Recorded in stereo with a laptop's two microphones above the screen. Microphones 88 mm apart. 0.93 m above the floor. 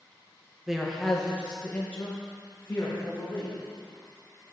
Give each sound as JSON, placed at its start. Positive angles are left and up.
{"t": 0.7, "sound": "a man speaking", "side_deg": -5, "distance_m": 0.8}